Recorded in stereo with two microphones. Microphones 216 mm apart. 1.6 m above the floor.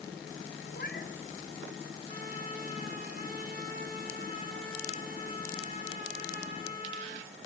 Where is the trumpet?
45° right (ahead or behind), 3.5 m.